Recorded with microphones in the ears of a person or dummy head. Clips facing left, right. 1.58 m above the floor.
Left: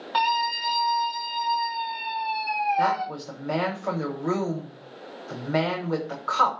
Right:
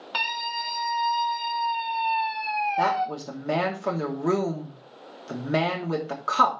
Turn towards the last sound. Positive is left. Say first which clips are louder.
# even
turn(degrees=-50)  # may be behind; listen again after turning